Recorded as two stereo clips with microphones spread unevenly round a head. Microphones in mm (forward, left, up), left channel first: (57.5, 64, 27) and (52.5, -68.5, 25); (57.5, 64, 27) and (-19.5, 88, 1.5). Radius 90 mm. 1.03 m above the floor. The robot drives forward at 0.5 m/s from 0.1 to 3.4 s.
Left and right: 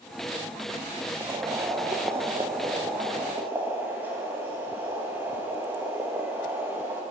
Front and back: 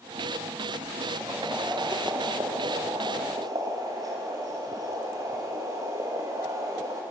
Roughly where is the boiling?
Behind right.